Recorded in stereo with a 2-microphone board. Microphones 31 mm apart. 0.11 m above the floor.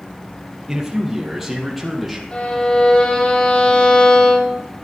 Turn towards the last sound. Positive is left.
turn(degrees=40)  # may be behind; listen again after turning